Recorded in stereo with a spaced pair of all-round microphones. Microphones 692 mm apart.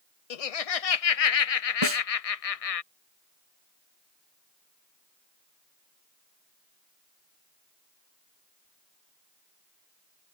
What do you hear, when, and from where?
0.3 s laughter: 60° left (ahead or behind)
1.8 s a snare drum: 40° right (ahead or behind)